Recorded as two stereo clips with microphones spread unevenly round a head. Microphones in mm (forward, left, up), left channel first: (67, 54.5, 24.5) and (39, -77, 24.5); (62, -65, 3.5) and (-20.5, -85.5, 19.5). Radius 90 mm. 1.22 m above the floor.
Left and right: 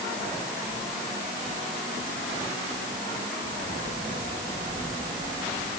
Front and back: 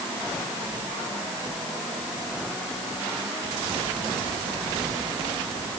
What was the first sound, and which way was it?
Only background noise.